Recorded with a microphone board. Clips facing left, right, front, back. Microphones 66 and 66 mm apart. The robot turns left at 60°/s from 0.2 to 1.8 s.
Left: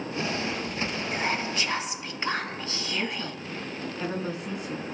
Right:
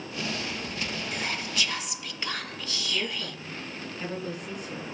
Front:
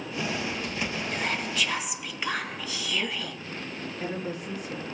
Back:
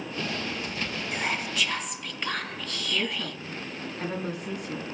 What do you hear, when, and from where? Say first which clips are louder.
1.1 s whispering: left 4 dB, back 2 dB; 115° left, 0.7 m; by 3.4 s 75° left, 0.7 m
2.9 s a woman speaking: left 1 dB, back 2 dB; 145° left, 5.5 m